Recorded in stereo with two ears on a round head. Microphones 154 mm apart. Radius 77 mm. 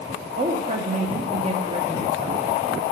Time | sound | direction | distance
0.4 | a woman speaking | 40° right (ahead or behind) | 1.0 m